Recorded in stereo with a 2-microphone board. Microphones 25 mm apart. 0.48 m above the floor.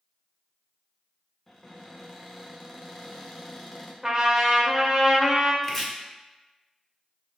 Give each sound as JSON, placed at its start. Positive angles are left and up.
{"t": 1.5, "sound": "a cupboard door", "side_deg": 10, "distance_m": 0.7}
{"t": 4.0, "sound": "a trumpet", "side_deg": -25, "distance_m": 0.6}
{"t": 5.6, "sound": "chopping", "side_deg": 10, "distance_m": 0.9}